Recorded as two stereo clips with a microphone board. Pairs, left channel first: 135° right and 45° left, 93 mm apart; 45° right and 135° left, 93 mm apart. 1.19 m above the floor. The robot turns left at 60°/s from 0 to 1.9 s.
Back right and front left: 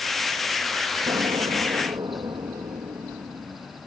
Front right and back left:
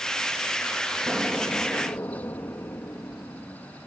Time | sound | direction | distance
1.1 | an explosion | 65° left | ?